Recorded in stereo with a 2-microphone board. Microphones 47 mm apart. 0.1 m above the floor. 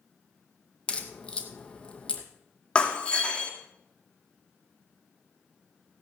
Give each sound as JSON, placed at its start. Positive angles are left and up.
{"t": 0.9, "sound": "a crack", "side_deg": 25, "distance_m": 1.9}
{"t": 2.8, "sound": "breaking glass", "side_deg": 25, "distance_m": 2.0}